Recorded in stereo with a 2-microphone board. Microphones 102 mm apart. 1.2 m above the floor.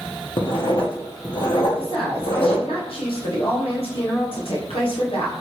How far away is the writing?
About 0.9 m.